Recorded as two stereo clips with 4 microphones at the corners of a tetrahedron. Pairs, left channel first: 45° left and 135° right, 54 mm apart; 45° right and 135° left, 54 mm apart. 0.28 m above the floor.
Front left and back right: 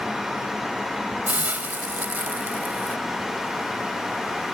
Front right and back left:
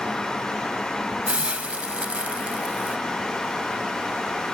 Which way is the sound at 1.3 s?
175° right.